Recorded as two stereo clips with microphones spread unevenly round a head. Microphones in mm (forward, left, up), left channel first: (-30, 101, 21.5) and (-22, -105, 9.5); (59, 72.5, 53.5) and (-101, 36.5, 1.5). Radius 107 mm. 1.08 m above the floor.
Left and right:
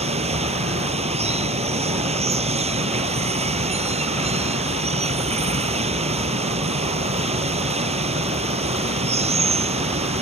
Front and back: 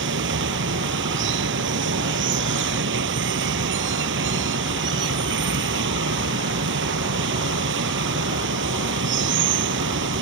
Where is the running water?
150° right.